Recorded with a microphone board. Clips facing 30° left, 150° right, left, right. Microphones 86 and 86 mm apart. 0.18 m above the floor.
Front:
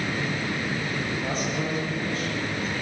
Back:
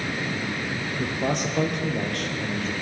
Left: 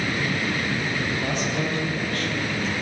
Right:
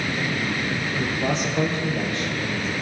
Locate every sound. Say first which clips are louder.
1.0 s a man speaking: back 2 dB, right 2 dB; 155° right, 5.5 m